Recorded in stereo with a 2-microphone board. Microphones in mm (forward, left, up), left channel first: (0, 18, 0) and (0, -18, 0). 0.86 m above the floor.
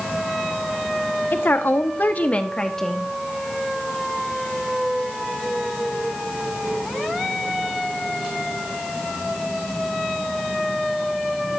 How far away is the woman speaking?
About 1.6 m.